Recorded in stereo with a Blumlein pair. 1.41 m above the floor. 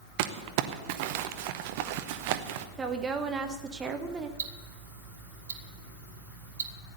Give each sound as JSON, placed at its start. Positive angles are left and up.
{"t": 0.2, "sound": "crumpling", "azimuth_deg": -45, "distance_m": 0.8}
{"t": 2.8, "sound": "a woman speaking", "azimuth_deg": -20, "distance_m": 1.0}
{"t": 4.4, "sound": "ticking", "azimuth_deg": -65, "distance_m": 1.2}